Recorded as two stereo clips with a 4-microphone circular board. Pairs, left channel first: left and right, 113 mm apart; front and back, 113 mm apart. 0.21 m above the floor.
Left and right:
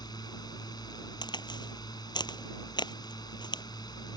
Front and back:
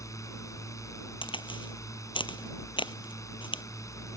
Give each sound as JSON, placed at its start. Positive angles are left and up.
{"t": 0.0, "sound": "a drone", "azimuth_deg": 50}
{"t": 1.2, "sound": "a crack", "azimuth_deg": 40}